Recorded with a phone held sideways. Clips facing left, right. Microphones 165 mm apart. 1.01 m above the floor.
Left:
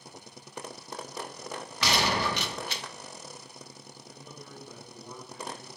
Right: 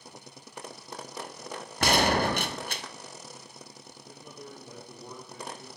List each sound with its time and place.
1.8 s a gunshot: 50° right (ahead or behind), 0.6 m
4.1 s a man speaking: 50° right (ahead or behind), 3 m